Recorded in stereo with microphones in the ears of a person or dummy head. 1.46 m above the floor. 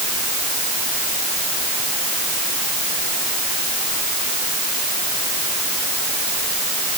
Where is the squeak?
I don't hear a squeak.